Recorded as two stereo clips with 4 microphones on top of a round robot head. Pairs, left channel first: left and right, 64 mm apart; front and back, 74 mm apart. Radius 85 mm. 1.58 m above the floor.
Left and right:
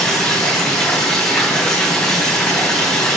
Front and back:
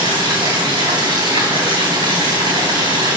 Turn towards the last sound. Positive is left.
turn(degrees=170)